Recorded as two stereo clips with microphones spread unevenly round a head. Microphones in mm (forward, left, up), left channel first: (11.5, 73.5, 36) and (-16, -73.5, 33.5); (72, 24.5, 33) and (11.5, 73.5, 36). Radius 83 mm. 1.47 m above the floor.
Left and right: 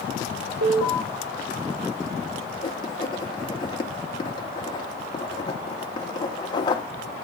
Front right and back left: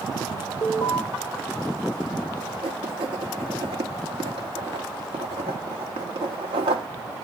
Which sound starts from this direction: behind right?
An alarm, at 0.6 s.